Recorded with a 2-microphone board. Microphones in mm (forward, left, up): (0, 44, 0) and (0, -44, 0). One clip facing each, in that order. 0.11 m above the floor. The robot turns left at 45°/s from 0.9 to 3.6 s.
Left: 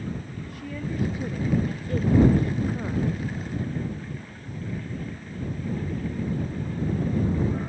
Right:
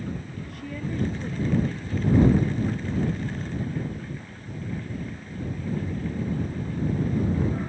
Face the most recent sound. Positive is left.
turn(degrees=55)